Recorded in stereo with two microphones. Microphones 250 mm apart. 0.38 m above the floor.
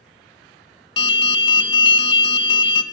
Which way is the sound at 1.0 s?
20° left (ahead or behind).